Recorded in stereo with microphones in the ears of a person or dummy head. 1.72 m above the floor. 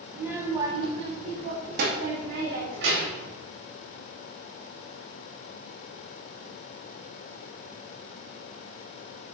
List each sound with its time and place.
0.1 s a child speaking: 5° right (ahead or behind), 1.2 m; by 3.3 s 70° right (ahead or behind), 2.5 m